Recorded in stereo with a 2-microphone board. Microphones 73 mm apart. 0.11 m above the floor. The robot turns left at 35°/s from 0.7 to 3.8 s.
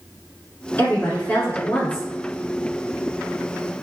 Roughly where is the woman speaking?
Left.